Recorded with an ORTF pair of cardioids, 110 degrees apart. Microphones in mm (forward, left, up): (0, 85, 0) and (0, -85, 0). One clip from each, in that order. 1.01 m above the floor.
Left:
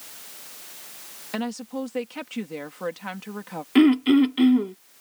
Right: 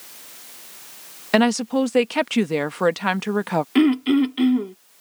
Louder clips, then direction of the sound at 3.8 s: Left 2 dB; 5° left.